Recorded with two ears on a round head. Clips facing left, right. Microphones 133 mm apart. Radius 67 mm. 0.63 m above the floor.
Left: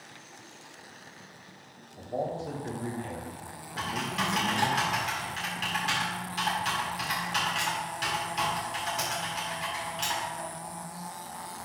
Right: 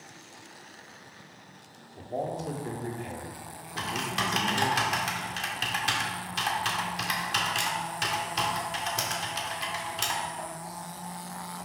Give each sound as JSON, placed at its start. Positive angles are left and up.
{"t": 2.0, "sound": "a man speaking", "side_deg": -20, "distance_m": 1.7}
{"t": 3.8, "sound": "typing on a keyboard", "side_deg": -60, "distance_m": 1.9}